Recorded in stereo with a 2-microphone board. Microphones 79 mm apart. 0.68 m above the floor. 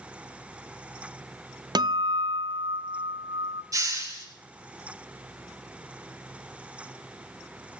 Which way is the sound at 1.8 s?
60° right (ahead or behind).